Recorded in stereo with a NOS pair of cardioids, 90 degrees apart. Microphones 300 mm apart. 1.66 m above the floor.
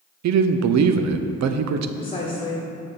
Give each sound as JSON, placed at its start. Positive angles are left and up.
{"t": 0.2, "sound": "a man speaking", "azimuth_deg": -65, "distance_m": 0.7}
{"t": 2.0, "sound": "a woman speaking", "azimuth_deg": 20, "distance_m": 1.2}